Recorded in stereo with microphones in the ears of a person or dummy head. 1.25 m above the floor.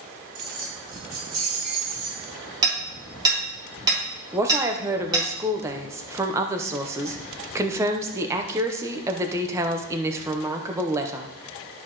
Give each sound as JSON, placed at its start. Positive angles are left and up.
{"t": 0.3, "sound": "keys jangling", "side_deg": -55, "distance_m": 4.5}
{"t": 2.6, "sound": "hammering", "side_deg": -25, "distance_m": 3.0}
{"t": 4.3, "sound": "a woman speaking", "side_deg": -15, "distance_m": 0.7}